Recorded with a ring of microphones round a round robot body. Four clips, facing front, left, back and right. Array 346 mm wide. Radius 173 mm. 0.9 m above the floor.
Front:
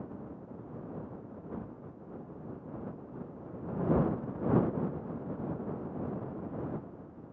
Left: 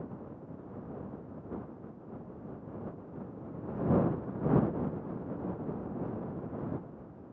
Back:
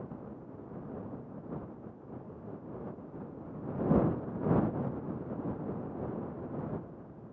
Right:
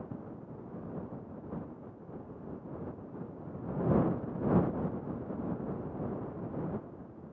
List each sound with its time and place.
Only background noise.